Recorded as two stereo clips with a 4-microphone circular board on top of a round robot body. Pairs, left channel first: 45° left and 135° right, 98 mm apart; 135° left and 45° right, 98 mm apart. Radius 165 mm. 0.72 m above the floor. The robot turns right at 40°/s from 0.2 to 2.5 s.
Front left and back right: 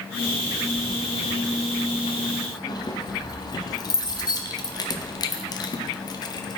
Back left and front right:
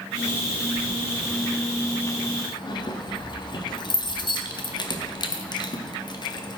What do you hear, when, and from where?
0.8 s keys jangling: 25° left, 1.0 m; by 6.6 s 95° left, 1.0 m